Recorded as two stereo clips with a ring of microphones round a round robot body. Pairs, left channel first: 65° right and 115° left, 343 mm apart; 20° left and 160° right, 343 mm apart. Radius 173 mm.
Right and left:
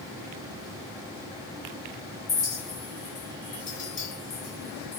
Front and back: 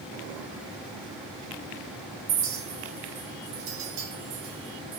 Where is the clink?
125° right, 2.5 m.